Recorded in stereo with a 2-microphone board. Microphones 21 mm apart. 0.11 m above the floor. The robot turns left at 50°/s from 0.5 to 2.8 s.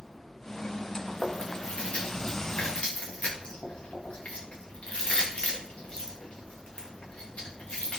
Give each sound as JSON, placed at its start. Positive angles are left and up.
{"t": 1.1, "sound": "chewing", "side_deg": 10, "distance_m": 3.5}